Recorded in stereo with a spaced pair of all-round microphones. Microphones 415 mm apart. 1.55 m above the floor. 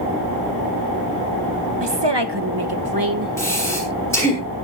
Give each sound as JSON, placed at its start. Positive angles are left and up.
{"t": 1.8, "sound": "a woman speaking", "side_deg": -85, "distance_m": 1.8}
{"t": 3.4, "sound": "breathing", "side_deg": 5, "distance_m": 7.0}